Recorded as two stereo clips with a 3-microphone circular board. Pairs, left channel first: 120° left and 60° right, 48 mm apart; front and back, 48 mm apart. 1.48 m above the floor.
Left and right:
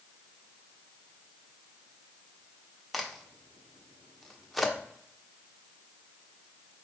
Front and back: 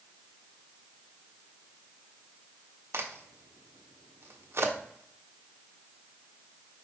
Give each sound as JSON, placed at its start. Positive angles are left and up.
{"t": 2.9, "sound": "a crack", "azimuth_deg": -155, "distance_m": 0.7}